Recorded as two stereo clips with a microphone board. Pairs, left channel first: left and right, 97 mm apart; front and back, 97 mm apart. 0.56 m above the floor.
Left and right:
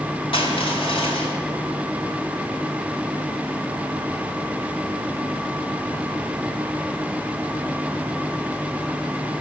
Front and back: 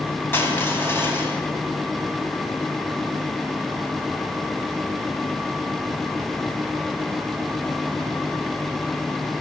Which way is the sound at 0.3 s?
65° left.